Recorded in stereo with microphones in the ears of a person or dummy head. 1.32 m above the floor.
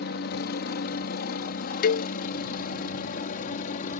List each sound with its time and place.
0.0 s a helicopter: 55° left (ahead or behind); by 4.0 s 45° left (ahead or behind)
1.8 s a cowbell: 40° left (ahead or behind)